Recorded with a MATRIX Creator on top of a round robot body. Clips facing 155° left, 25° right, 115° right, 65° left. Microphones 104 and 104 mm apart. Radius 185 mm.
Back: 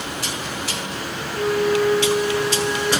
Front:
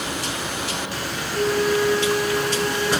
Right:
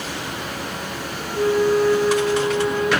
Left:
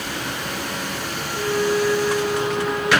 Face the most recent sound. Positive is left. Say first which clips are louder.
# back 1 dB, right 4 dB
turn(degrees=-60)